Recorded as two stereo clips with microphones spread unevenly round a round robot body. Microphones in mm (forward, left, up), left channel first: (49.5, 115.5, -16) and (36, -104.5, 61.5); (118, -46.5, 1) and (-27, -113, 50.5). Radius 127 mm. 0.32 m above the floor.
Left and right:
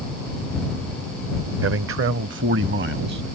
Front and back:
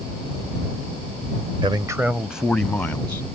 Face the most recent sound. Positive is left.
turn(degrees=-50)